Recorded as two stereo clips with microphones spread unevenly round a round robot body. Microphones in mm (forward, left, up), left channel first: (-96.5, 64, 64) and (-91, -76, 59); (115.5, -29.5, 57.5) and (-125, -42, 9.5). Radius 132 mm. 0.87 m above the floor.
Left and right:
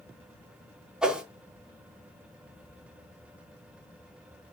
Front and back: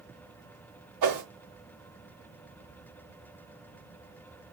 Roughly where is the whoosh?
Behind.